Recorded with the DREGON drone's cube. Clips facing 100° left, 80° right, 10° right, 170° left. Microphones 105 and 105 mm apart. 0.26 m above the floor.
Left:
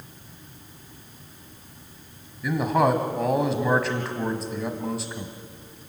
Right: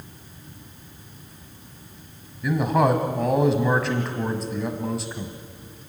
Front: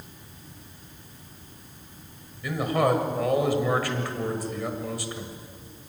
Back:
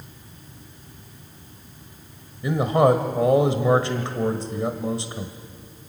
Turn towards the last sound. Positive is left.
turn(degrees=-170)